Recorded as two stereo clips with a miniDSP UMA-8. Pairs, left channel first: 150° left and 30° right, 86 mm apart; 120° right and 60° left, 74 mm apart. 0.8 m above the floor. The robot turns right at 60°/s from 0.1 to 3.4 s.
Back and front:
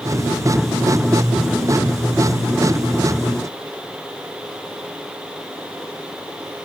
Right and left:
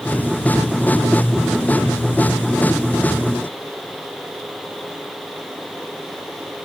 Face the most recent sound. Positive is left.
No sound to turn to.